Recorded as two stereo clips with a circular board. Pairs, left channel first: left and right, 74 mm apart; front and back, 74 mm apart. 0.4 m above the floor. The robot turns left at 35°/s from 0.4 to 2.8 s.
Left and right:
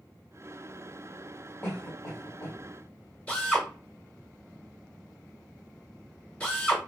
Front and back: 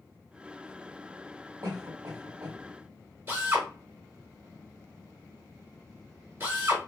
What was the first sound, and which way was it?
A cough, 150° left.